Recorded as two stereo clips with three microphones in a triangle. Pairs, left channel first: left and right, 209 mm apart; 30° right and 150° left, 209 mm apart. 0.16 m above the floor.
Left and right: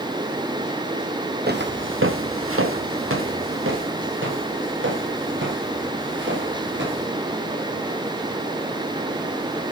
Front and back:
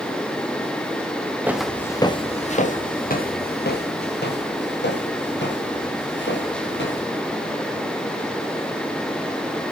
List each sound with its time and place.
1.5 s footsteps: 130° right, 1.3 m; by 7.0 s 60° right, 7.5 m